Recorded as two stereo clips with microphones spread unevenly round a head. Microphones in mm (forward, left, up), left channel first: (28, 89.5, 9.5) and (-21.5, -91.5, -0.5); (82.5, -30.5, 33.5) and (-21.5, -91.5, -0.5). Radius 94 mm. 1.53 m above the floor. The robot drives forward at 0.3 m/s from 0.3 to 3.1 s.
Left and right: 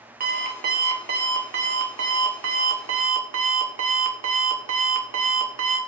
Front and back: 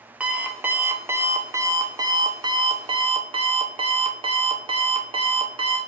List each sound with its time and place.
0.2 s an alarm clock: 65° right, 1.5 m; by 5.8 s 100° right, 1.4 m